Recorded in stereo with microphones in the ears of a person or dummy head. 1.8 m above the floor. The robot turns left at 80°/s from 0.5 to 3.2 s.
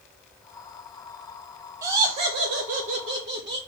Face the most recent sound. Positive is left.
turn(degrees=-140)